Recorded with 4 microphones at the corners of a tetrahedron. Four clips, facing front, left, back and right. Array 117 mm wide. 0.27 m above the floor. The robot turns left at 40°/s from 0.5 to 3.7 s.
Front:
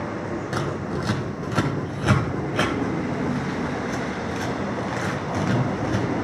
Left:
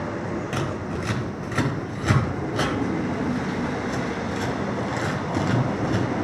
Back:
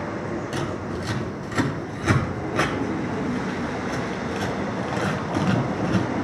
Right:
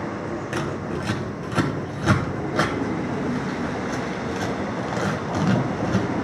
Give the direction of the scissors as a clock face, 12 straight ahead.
12 o'clock.